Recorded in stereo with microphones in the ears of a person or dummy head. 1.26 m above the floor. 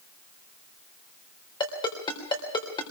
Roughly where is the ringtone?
Left.